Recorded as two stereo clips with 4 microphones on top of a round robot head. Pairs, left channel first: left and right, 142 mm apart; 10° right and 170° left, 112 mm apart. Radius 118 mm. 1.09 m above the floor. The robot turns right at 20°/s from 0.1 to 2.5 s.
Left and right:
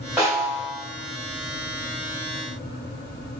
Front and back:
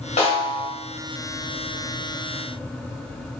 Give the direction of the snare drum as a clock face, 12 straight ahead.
12 o'clock.